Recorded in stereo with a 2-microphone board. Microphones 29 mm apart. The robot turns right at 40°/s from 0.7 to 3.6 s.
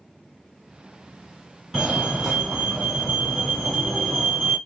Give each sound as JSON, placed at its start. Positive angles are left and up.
{"t": 1.7, "sound": "a fire alarm", "side_deg": -20, "distance_m": 2.0}